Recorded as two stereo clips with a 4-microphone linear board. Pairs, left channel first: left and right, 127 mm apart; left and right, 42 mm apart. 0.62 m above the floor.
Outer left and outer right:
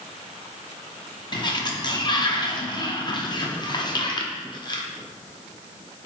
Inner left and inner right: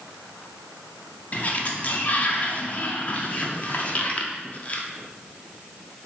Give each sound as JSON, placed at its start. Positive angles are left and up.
{"t": 1.3, "sound": "a sliding door", "side_deg": 35, "distance_m": 0.5}